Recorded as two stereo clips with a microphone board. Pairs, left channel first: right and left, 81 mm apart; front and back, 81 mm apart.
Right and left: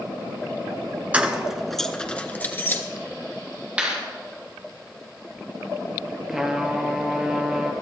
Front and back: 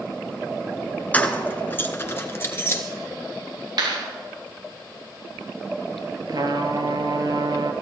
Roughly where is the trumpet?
Behind.